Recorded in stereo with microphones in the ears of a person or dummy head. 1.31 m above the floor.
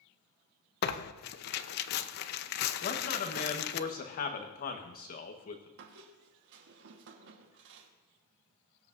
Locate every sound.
0.8 s tearing paper: 55° left (ahead or behind), 0.7 m
2.8 s a man speaking: 45° left (ahead or behind), 1.3 m
5.8 s a squeak: 65° right (ahead or behind), 1.3 m